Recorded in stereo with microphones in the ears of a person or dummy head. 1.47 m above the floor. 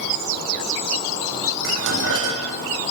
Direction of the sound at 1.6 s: 65° right (ahead or behind).